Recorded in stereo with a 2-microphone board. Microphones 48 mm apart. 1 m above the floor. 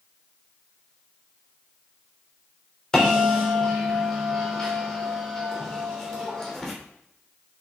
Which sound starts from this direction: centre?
A bell, at 2.9 s.